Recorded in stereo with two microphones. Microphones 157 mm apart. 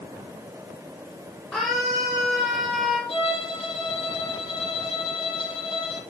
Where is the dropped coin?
No dropped coin in this recording.